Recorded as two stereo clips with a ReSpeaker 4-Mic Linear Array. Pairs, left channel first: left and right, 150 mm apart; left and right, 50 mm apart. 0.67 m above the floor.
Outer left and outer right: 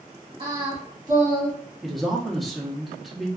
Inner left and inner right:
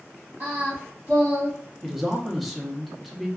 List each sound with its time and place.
0.4 s singing: 30° right (ahead or behind), 1.4 m
1.8 s a man speaking: centre (ahead or behind), 0.8 m